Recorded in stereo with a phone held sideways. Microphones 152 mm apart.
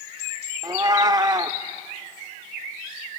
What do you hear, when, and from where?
0.6 s a cat meowing: 25° right (ahead or behind), 0.9 m